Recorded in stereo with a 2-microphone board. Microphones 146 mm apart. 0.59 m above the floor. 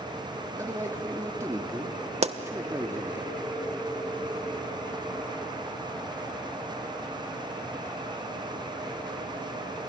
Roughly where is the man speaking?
Centre.